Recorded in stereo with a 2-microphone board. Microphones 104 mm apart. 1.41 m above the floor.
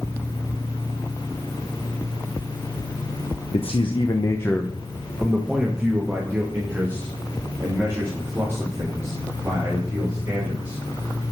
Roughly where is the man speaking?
Left.